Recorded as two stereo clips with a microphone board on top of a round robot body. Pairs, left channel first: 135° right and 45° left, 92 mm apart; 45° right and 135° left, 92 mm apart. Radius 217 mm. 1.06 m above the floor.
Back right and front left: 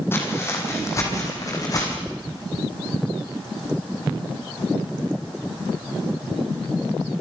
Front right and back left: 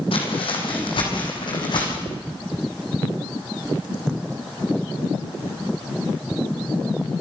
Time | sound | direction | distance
0.1 | footsteps | 70° right | 4 m
2.1 | ticking | 175° right | 2.5 m